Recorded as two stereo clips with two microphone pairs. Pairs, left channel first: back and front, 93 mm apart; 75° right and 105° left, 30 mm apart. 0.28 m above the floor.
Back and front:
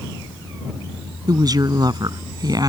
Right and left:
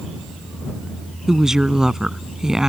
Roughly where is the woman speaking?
Ahead left.